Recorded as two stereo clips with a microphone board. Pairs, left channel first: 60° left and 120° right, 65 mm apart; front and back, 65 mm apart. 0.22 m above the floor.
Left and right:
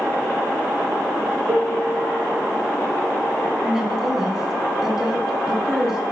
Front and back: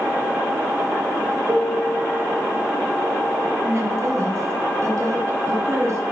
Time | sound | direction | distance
1.5 | a piano | 100° right | 1.7 m
3.6 | a woman speaking | 160° left | 2.0 m